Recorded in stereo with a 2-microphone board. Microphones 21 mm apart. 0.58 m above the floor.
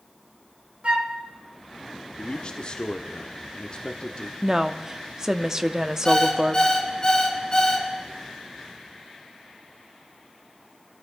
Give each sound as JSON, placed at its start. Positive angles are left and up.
{"t": 0.8, "sound": "a flute", "side_deg": -70, "distance_m": 1.7}
{"t": 2.2, "sound": "a man speaking", "side_deg": 45, "distance_m": 0.9}
{"t": 4.4, "sound": "a woman speaking", "side_deg": -20, "distance_m": 0.6}
{"t": 6.0, "sound": "an alarm clock", "side_deg": 30, "distance_m": 4.0}